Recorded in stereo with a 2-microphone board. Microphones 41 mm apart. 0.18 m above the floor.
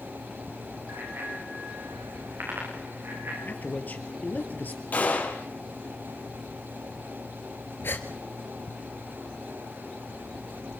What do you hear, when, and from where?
0.9 s a bicycle bell: 70° right (ahead or behind), 9.5 m; by 3.4 s 80° right, 10 m
3.5 s a man speaking: 45° left (ahead or behind), 3 m
4.9 s a gunshot: 45° left (ahead or behind), 5 m
7.8 s a gasp: 70° left (ahead or behind), 2 m